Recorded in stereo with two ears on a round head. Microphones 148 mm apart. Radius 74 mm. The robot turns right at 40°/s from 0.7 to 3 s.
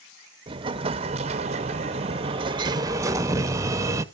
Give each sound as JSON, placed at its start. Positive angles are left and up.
{"t": 0.5, "sound": "an explosion", "azimuth_deg": -125, "distance_m": 0.6}